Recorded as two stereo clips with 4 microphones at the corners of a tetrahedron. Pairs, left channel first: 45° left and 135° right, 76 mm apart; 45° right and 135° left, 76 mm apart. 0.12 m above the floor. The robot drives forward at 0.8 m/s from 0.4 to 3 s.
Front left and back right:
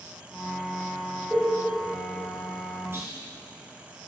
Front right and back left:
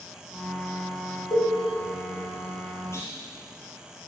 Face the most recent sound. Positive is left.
turn(degrees=-85)